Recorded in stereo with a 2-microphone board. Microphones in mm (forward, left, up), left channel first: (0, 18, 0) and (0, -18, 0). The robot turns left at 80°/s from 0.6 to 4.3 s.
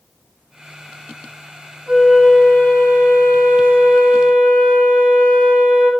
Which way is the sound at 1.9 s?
130° right.